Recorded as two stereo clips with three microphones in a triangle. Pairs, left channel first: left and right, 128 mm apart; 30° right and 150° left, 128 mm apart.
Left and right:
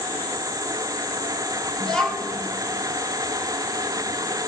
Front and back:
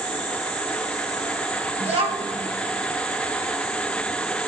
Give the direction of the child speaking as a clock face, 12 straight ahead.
6 o'clock.